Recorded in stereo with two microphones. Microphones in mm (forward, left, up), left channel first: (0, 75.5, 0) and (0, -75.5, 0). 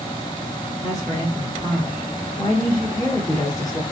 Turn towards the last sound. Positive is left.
turn(degrees=20)  # may be behind; listen again after turning